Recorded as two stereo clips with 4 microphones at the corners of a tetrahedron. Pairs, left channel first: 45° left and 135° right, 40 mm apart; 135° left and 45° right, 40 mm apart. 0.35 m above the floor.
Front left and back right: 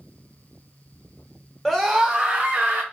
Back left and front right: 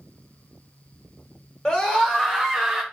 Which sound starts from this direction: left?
A scream, at 1.6 s.